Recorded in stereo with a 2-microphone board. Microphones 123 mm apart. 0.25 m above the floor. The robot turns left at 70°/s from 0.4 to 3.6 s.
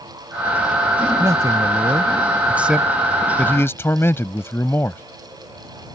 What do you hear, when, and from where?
1.2 s a man speaking: 25° right (ahead or behind); by 5.0 s 20° left (ahead or behind)